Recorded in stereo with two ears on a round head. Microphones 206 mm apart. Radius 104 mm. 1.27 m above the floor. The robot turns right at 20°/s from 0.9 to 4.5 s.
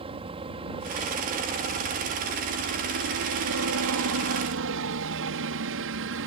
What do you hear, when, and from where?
0.0 s a helicopter: 150° right; by 6.3 s 80° right